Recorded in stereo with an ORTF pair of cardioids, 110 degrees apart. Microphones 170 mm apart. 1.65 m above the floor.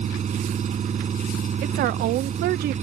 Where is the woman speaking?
70° right.